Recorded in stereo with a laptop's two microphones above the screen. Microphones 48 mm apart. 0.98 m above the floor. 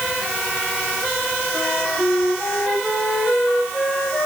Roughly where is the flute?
Centre.